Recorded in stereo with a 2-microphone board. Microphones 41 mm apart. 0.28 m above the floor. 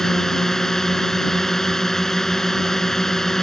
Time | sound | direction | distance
0.0 | a drone | 10° left (ahead or behind) | ?